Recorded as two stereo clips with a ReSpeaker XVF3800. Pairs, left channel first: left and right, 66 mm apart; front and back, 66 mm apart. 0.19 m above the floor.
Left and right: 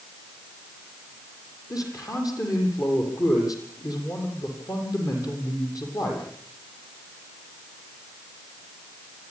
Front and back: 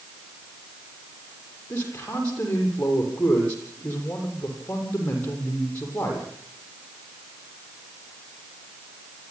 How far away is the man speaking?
About 8.5 m.